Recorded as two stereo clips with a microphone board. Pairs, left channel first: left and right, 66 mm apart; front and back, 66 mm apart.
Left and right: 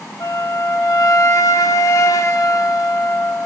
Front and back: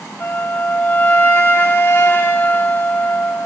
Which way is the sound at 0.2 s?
55° left.